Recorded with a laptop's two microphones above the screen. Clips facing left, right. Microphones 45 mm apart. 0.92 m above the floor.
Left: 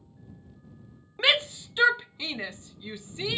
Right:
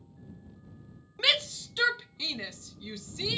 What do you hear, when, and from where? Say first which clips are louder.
1.2 s a shout: left 4 dB; 25° left (ahead or behind)